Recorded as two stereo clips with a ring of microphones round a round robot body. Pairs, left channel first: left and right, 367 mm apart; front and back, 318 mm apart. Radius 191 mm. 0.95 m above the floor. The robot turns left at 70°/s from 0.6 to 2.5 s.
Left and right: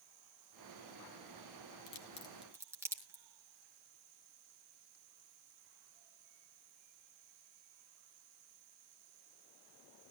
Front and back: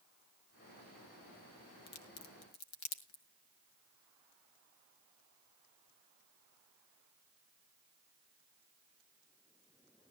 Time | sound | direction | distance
1.9 | a crack | 40° left | 2 m